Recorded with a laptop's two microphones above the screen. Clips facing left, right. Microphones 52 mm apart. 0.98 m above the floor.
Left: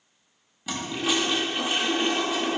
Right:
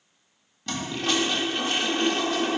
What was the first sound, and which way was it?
A toilet flushing, 10° left (ahead or behind).